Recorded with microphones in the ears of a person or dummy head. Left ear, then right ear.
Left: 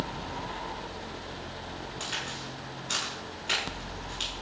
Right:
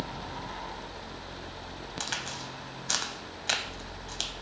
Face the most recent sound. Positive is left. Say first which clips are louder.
# even
turn(degrees=-70)  # may be behind; listen again after turning